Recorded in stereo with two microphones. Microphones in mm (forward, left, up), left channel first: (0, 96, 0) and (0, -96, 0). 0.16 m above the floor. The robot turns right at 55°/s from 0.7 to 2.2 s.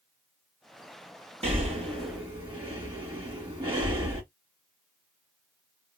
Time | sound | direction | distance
1.4 | breathing | 35° right (ahead or behind) | 1.4 m